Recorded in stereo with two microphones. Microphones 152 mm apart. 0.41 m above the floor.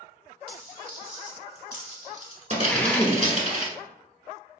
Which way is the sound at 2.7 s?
10° left (ahead or behind).